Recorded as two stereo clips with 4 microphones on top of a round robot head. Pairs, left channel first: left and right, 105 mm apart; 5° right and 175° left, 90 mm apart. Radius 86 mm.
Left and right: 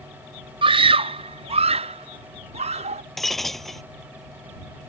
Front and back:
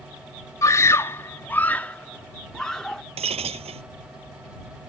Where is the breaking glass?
Straight behind.